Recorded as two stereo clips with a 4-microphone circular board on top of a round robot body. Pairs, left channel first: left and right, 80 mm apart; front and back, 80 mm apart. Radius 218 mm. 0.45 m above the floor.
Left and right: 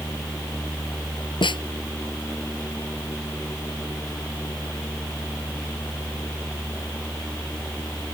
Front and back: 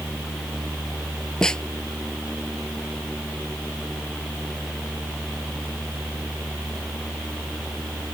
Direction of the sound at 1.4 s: 80° left.